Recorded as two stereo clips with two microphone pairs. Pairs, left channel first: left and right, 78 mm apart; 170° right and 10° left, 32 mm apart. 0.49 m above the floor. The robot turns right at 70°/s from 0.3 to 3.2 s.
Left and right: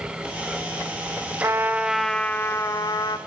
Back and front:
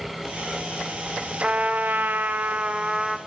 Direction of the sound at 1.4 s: 40° right.